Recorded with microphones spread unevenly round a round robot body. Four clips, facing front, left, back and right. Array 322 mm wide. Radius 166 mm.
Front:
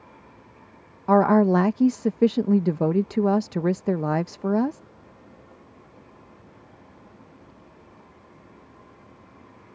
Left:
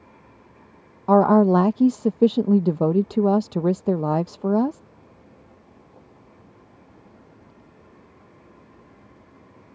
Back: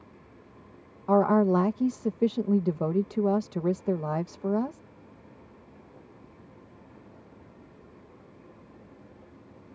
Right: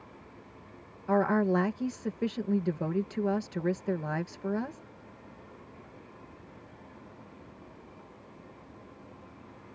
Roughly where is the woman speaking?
Ahead left.